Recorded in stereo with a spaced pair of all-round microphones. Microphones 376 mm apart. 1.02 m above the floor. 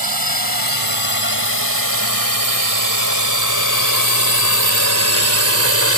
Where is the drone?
70° right (ahead or behind); by 6.0 s 40° right (ahead or behind).